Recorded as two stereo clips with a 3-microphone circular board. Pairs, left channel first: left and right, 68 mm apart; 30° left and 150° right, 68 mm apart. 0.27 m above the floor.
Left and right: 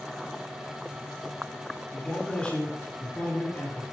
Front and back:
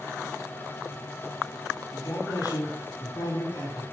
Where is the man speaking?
10° left, 6 m.